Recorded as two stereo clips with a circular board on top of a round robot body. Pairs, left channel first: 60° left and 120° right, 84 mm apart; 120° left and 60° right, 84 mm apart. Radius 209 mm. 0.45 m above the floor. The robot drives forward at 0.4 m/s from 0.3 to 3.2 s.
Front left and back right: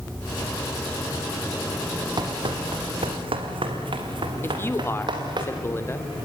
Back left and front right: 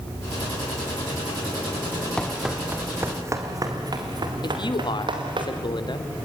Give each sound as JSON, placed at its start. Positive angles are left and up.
{"t": 2.2, "sound": "running footsteps", "azimuth_deg": -160, "distance_m": 1.4}
{"t": 4.4, "sound": "a man speaking", "azimuth_deg": 115, "distance_m": 2.5}